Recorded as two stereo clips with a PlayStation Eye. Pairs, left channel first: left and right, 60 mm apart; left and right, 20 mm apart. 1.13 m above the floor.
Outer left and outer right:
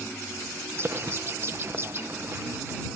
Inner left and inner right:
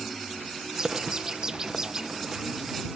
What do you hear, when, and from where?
0.7 s a bird: 40° right (ahead or behind)